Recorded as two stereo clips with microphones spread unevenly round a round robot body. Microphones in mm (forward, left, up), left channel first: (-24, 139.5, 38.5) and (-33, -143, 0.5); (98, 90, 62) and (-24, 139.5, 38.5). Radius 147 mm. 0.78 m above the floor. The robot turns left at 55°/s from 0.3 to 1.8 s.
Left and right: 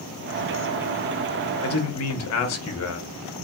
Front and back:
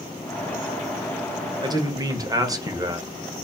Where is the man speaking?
125° left, 0.8 m; by 3.1 s 115° left, 0.8 m.